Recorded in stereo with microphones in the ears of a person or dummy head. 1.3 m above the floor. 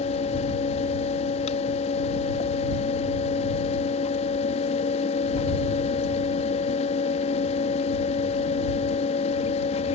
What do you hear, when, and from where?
0.0 s a fan: 40° left (ahead or behind)